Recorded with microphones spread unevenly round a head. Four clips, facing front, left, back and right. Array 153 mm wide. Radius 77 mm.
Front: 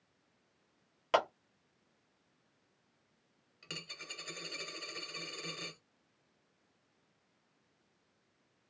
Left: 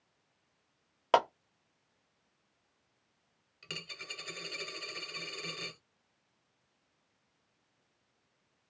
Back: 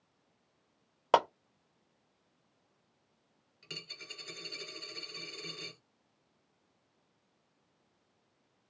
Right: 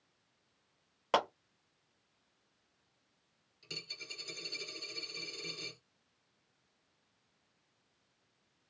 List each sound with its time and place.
1.1 s a clap: 155° left, 1.0 m
3.6 s a dropped coin: 40° left, 1.5 m